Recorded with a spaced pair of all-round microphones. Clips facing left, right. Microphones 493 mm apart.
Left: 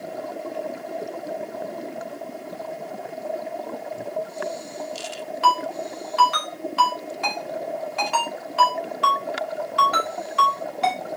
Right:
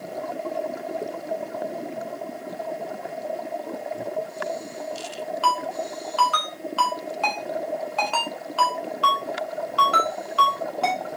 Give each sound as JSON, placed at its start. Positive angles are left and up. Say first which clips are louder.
{"t": 5.4, "sound": "a ringtone", "louder": "left 5 dB", "side_deg": 40, "distance_m": 3.5}